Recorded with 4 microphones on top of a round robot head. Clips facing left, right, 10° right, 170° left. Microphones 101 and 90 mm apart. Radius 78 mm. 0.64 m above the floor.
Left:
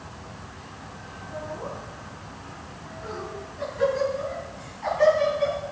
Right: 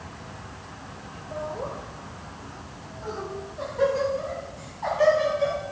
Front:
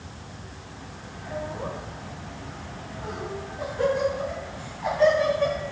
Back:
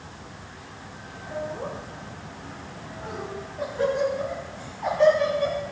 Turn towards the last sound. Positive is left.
turn(degrees=-140)